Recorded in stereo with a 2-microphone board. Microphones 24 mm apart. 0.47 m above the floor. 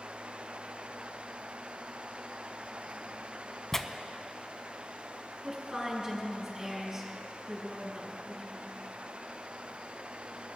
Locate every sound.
3.7 s tearing paper: 15° left (ahead or behind), 0.6 m
5.4 s a woman speaking: 25° right (ahead or behind), 5 m